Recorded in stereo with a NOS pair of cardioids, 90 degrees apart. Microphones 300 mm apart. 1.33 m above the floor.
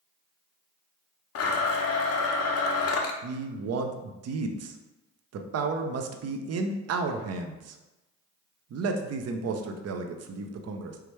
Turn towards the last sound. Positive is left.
turn(degrees=-55)